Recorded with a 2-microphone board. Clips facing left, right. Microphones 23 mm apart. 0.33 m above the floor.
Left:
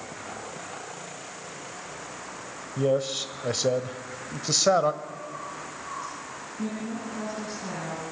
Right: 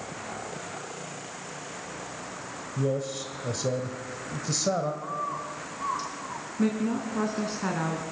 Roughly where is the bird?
Right.